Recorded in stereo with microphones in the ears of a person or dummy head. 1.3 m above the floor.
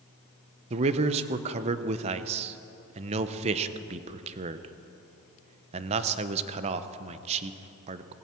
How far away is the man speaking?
About 0.8 m.